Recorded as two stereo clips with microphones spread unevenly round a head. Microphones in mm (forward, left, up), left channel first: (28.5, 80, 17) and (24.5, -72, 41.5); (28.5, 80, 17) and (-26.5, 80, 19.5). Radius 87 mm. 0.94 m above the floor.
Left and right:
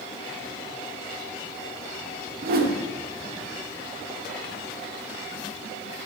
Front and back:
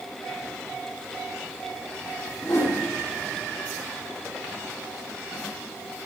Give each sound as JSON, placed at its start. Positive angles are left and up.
{"t": 2.4, "sound": "a whoosh", "azimuth_deg": -60, "distance_m": 0.8}